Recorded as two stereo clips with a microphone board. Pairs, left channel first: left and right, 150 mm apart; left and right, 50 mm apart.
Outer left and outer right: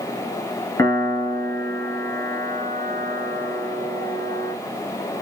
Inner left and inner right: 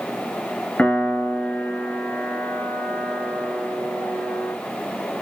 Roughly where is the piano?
Left.